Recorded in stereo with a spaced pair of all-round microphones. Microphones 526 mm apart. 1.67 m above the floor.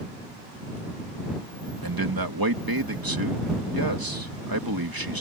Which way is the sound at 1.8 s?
40° right (ahead or behind).